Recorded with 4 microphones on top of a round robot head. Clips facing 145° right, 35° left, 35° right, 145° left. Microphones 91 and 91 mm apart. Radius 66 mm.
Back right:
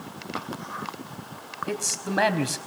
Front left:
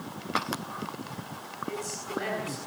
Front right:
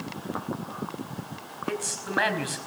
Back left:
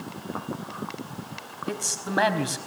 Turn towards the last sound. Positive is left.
turn(degrees=-150)